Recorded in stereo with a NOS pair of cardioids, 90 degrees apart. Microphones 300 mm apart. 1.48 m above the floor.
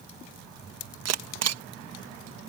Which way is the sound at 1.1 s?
55° right.